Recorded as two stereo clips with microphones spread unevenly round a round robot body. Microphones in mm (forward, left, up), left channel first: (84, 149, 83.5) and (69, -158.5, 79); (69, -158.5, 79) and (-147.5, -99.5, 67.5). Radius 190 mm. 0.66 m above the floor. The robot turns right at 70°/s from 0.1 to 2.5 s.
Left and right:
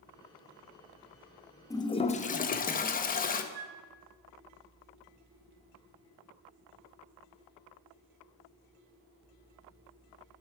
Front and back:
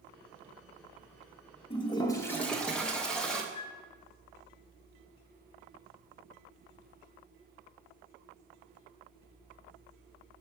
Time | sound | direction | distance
1.7 | a toilet flushing | 15° left | 0.5 m
3.5 | a flute | 65° right | 0.9 m